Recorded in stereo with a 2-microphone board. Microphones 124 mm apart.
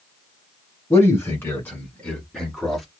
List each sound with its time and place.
0.9 s a man speaking: 20° left (ahead or behind), 1.4 m; by 2.9 s centre (ahead or behind), 1.4 m